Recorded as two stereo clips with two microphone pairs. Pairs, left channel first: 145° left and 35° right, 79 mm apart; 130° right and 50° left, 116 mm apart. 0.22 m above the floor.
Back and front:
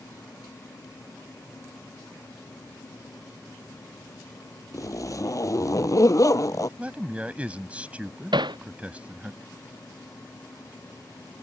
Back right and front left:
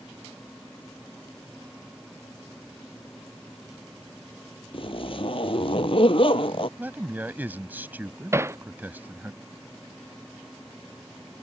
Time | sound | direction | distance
4.7 | a zipper | 170° right | ?
6.8 | a man speaking | 5° left | ?
8.3 | hammering | 20° right | ?